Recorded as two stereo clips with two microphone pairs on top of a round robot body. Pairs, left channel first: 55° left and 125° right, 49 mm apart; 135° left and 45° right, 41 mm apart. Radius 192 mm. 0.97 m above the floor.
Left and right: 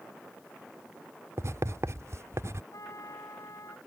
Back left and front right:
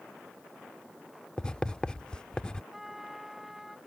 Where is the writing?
155° right.